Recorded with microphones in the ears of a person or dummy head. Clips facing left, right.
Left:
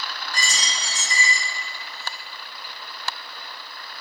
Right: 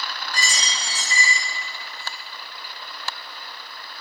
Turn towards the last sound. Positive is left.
turn(degrees=-35)  # may be behind; listen again after turning